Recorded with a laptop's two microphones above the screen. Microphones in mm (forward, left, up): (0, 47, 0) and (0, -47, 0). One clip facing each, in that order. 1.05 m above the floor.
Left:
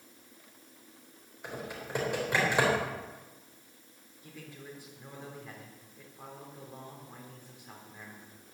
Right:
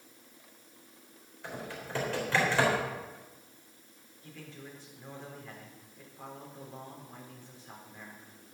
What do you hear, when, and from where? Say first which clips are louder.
1.4 s typing on a keyboard: left 1 dB; 15° left (ahead or behind), 3.5 m
4.2 s a man speaking: even; 10° left (ahead or behind), 3.5 m